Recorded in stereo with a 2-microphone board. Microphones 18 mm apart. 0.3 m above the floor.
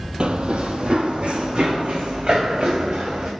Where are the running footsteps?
65° right (ahead or behind), 0.5 m; by 3.3 s 85° right, 2 m.